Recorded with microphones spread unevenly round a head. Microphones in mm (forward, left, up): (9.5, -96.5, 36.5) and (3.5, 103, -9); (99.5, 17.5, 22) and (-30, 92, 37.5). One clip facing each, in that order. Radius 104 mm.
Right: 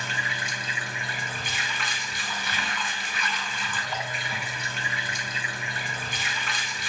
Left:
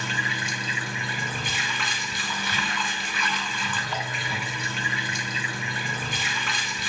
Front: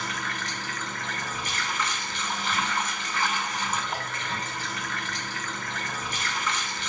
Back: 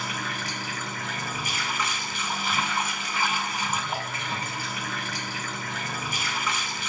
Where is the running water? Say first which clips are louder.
Left 3 dB, back 1 dB; 70° left, 2.5 m.